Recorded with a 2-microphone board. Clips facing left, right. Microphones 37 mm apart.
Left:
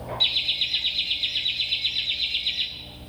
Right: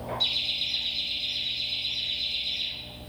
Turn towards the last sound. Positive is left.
turn(degrees=65)  # may be behind; listen again after turning